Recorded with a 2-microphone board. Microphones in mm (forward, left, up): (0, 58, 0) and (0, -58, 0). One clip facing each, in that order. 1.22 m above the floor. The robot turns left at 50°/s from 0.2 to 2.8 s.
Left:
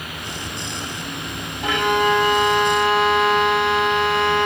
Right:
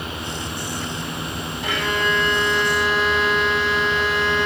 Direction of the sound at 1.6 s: 125° left.